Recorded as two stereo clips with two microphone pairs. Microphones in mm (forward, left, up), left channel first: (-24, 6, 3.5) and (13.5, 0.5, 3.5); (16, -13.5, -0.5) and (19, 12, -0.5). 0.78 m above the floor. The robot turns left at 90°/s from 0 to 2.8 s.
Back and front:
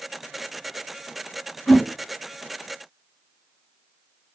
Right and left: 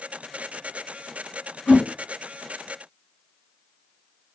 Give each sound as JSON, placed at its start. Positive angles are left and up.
{"t": 1.7, "sound": "a whoosh", "azimuth_deg": -115, "distance_m": 1.6}